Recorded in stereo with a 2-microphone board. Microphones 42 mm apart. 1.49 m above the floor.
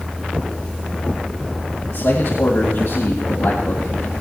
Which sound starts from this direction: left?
A man speaking, at 1.9 s.